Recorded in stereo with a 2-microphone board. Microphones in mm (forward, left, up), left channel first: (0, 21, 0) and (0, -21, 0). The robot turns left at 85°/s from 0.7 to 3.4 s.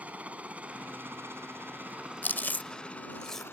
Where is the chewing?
45° left (ahead or behind); by 3.5 s 5° left (ahead or behind).